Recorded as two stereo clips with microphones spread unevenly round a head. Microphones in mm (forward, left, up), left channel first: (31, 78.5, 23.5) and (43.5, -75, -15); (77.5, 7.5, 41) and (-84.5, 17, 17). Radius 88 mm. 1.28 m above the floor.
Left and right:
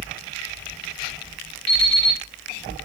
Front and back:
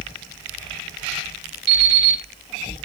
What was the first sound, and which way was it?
An alarm clock, 155° right.